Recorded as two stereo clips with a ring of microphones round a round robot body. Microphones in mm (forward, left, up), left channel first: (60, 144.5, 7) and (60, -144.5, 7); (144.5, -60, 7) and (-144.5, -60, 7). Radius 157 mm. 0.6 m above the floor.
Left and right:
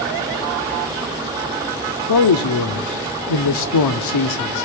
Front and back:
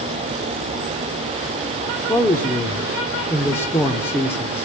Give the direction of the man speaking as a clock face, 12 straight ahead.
9 o'clock.